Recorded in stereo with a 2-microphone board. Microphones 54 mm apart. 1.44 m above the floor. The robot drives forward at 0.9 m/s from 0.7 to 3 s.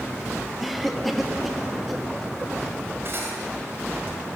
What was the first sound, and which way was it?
A cough, centre (ahead or behind).